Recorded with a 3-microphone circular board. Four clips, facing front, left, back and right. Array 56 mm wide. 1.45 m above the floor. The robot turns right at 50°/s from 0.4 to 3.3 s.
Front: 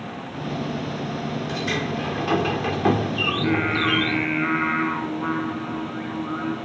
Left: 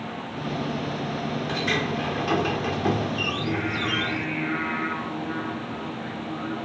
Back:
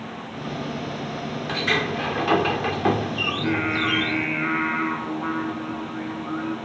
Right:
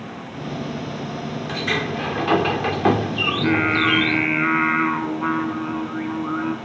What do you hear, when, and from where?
1.5 s a sliding door: 165° right, 1.2 m; by 4.3 s 75° right, 1.2 m
3.3 s singing: 90° right, 4.5 m